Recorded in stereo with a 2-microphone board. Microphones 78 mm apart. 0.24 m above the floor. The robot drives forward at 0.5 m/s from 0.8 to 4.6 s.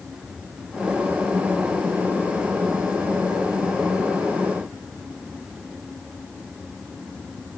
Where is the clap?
No clap in this recording.